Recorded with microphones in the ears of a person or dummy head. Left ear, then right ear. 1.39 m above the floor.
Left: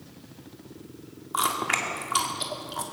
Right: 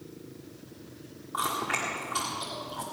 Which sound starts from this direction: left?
Chewing, at 1.3 s.